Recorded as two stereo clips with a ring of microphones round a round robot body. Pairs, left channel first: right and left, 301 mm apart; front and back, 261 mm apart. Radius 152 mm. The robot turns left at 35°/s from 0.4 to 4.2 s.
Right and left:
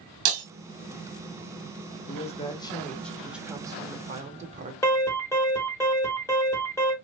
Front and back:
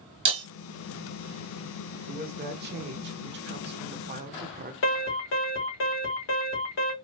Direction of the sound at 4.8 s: 10° right.